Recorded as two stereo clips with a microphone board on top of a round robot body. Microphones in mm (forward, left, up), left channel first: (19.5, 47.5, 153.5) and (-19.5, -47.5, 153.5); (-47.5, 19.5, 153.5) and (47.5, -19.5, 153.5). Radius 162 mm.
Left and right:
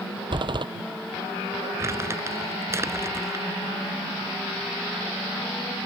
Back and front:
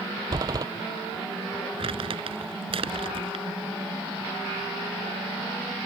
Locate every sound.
0.3 s a door slam: 75° right
1.8 s crumpling: 50° right